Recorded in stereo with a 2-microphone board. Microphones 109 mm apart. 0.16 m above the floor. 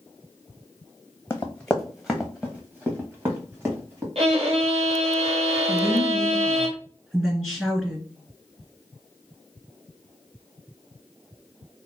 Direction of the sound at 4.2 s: 70° right (ahead or behind).